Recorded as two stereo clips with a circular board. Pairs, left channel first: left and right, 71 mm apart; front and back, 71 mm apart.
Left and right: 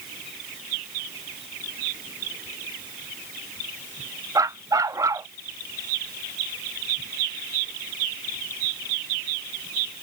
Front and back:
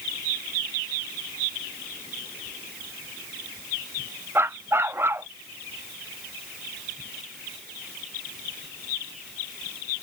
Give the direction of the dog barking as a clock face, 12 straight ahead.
4 o'clock.